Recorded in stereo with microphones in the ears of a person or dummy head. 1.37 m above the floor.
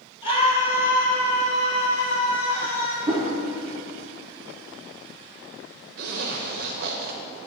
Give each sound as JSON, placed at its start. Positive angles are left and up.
{"t": 0.2, "sound": "a scream", "side_deg": 25, "distance_m": 0.9}
{"t": 3.1, "sound": "a whoosh", "side_deg": -20, "distance_m": 1.0}
{"t": 6.0, "sound": "a zipper", "side_deg": -65, "distance_m": 0.9}